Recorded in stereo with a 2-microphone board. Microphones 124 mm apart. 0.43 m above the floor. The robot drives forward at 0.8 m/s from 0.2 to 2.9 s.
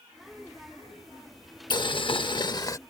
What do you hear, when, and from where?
1.7 s boiling: 35° left (ahead or behind); by 2.8 s 30° left (ahead or behind)